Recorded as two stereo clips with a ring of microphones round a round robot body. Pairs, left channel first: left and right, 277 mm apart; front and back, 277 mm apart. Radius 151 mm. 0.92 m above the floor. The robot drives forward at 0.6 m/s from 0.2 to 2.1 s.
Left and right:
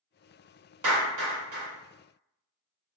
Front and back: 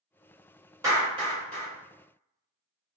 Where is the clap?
100° right, 1.6 m; by 1.7 s 115° right, 1.8 m.